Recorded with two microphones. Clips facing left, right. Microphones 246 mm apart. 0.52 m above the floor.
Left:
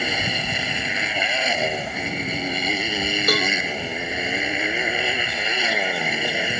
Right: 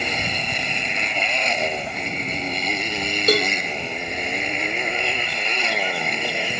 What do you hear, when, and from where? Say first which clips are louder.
0.0 s a motorcycle: left 1 dB; 5° left (ahead or behind)
3.3 s a cowbell: right 5 dB; 25° right (ahead or behind)